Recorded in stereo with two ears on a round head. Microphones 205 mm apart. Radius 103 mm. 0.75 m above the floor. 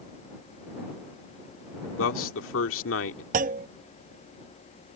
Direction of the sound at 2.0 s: 65° left (ahead or behind).